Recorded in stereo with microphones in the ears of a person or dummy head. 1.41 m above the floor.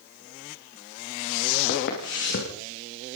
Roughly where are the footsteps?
Left.